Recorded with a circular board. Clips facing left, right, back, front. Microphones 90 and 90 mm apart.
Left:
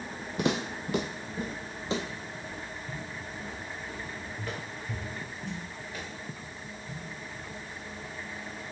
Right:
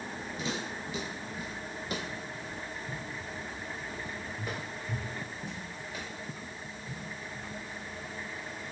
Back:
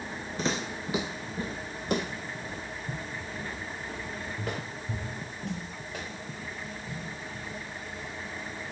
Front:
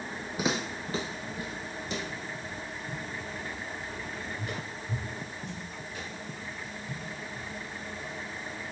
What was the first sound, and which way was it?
Footsteps, 80° left.